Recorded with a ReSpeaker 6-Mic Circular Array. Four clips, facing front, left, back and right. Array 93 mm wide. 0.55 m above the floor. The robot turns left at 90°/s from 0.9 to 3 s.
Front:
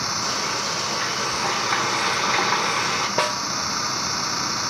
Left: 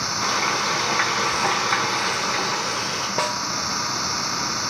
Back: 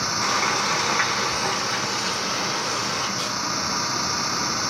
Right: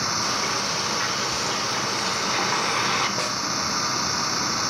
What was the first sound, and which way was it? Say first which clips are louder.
Frying: left 4 dB, back 7 dB; 130° left.